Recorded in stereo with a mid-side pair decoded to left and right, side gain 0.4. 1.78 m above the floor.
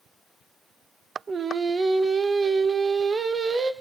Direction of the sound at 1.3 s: 40° right.